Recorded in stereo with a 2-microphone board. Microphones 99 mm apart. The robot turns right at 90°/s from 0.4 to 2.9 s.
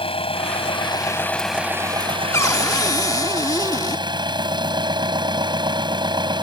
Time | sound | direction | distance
0.0 | an engine running | 80° left | ?
2.3 | a cupboard door | 50° left | ?